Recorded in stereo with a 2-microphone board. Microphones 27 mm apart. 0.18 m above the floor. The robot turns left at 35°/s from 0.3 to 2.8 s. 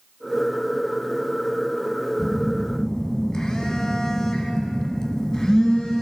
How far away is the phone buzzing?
About 1.6 m.